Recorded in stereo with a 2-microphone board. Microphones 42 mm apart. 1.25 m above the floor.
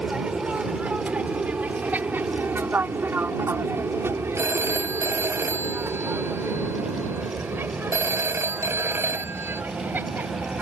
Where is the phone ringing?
80° right.